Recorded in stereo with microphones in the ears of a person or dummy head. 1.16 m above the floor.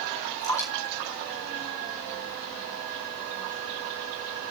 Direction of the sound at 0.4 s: 15° left (ahead or behind).